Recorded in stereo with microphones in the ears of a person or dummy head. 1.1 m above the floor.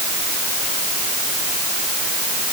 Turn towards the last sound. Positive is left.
No sound to turn to.